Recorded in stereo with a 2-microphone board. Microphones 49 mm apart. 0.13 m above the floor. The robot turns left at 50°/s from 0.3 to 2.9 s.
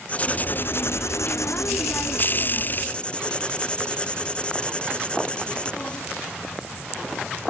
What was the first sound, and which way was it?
Writing, 150° left.